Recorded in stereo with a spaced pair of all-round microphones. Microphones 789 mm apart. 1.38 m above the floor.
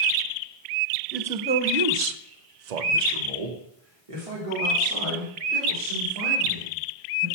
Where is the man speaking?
Centre (ahead or behind), 0.8 m; by 7.3 s 35° right (ahead or behind), 4 m.